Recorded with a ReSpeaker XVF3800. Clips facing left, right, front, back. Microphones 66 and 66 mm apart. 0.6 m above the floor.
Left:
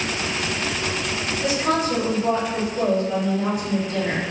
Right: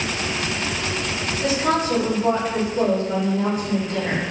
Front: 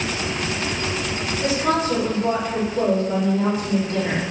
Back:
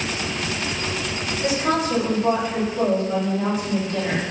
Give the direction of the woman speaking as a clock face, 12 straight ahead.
1 o'clock.